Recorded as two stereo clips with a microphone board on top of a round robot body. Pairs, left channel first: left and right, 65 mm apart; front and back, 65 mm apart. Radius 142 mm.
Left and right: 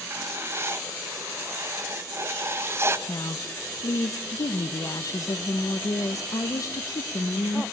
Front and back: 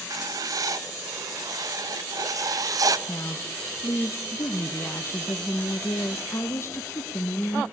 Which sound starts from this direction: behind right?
Writing, at 0.1 s.